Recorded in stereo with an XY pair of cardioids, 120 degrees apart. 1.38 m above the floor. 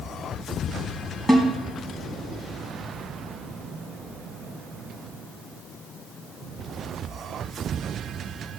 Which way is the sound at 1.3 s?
5° left.